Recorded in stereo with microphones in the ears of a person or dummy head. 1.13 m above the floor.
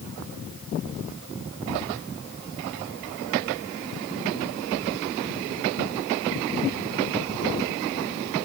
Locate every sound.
Only background noise.